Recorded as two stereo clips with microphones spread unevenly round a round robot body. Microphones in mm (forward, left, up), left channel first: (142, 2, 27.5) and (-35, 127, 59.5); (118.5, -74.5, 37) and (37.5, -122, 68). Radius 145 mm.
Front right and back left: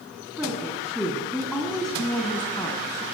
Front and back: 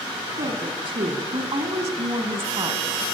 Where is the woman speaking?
130° right, 3.5 m; by 3.0 s 110° right, 2.5 m.